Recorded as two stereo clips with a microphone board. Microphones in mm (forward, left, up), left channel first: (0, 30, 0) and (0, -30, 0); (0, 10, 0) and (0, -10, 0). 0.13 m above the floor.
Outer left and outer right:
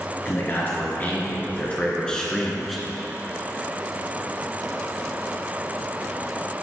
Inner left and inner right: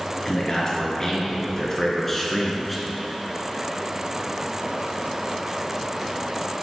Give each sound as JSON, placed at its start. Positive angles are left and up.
{"t": 0.2, "sound": "a man speaking", "side_deg": 40, "distance_m": 2.5}